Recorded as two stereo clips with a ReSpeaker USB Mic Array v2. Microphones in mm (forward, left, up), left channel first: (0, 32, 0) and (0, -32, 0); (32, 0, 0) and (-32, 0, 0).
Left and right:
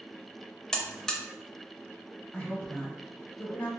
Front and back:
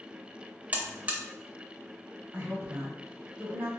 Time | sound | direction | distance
0.7 | a buzzer | 155° left | 0.6 m
2.3 | a woman speaking | 140° left | 1.2 m